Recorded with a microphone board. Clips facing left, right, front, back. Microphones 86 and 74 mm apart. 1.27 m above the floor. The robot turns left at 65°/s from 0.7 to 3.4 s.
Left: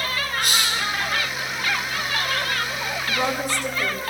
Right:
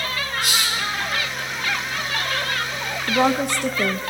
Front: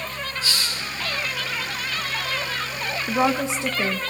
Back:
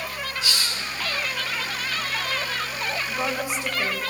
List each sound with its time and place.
0.4 s a hiss: 50° left, 8 m; by 0.8 s 45° left, 8 m
3.1 s a woman speaking: 45° right, 1.1 m; by 4.0 s 65° right, 1.1 m